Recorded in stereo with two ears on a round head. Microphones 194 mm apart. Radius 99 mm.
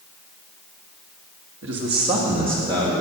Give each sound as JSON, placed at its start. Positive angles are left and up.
{"t": 1.6, "sound": "a man speaking", "side_deg": -60, "distance_m": 1.6}